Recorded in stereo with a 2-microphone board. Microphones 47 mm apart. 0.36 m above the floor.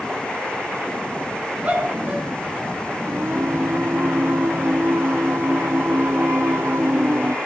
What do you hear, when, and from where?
1.6 s a shout: 35° right (ahead or behind), 4 m; by 2.7 s 25° right (ahead or behind), 4 m
3.1 s singing: 60° right (ahead or behind), 0.5 m